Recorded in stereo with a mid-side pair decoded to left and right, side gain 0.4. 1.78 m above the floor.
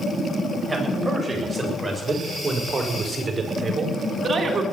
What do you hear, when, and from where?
0.7 s a man speaking: 15° right, 7 m; by 4.6 s 50° right, 4 m